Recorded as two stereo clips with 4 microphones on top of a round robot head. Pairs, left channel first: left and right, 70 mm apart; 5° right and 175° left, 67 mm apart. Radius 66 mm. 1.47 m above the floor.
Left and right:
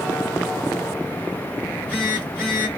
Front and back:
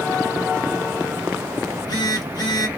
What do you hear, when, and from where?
1.6 s a phone buzzing: 15° left, 2 m